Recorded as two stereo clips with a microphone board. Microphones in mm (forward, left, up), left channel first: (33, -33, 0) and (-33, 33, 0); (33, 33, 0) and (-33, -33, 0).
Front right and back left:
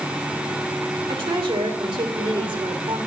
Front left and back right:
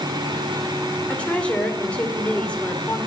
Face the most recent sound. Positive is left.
turn(degrees=120)